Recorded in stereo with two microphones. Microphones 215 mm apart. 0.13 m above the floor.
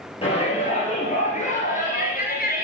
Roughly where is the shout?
Left.